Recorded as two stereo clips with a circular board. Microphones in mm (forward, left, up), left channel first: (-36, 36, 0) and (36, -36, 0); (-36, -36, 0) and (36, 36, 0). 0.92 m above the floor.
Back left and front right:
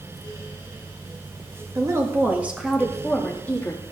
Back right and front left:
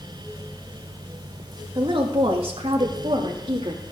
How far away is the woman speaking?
About 1.6 m.